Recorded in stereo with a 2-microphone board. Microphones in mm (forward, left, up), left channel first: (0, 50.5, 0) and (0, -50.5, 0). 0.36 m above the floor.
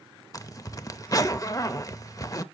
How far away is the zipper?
About 0.5 m.